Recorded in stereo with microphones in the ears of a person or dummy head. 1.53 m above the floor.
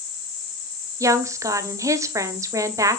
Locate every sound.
1.0 s a woman speaking: 15° right (ahead or behind), 0.8 m